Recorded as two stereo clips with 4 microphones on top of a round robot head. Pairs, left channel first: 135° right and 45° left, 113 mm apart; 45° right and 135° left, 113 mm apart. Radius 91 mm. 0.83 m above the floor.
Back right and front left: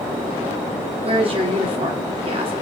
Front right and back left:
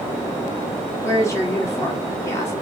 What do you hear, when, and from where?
1.0 s a woman speaking: 15° left, 1.8 m